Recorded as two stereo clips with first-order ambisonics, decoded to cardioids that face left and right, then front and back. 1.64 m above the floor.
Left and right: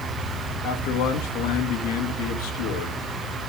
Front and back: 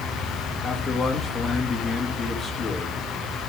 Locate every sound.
0.6 s a man speaking: 80° left, 2 m